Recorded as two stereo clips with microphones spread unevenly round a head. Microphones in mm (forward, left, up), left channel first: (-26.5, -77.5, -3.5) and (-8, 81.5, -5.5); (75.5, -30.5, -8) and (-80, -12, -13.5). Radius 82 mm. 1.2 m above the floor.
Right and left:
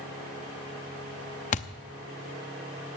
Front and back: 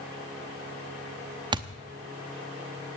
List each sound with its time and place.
1.5 s a thud: 130° right, 0.8 m